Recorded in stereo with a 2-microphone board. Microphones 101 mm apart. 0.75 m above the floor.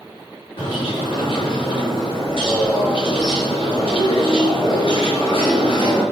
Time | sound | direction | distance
0.6 | a bird | 55° left (ahead or behind) | 6.5 m